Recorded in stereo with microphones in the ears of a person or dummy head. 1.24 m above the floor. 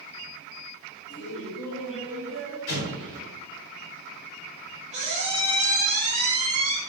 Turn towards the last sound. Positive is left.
turn(degrees=-35)  # may be behind; listen again after turning